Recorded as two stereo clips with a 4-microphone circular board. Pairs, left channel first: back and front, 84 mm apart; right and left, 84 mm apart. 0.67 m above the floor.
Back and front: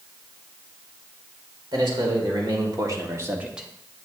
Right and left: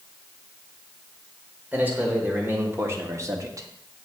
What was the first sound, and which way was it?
A man speaking, 20° left.